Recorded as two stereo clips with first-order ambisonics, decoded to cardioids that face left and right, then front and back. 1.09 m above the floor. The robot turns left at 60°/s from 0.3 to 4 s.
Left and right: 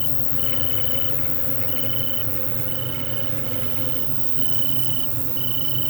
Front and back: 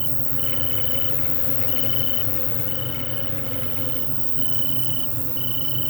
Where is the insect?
100° left; by 5.9 s 120° right.